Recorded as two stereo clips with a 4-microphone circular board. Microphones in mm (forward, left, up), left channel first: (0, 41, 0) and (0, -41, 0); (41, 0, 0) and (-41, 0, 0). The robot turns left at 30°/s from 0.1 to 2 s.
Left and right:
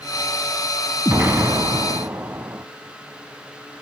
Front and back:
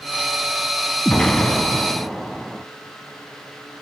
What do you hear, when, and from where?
1.1 s an explosion: 65° right, 0.6 m; by 2.6 s 95° right, 0.6 m